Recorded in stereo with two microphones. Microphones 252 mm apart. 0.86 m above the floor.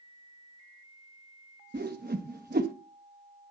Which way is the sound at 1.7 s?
40° right (ahead or behind).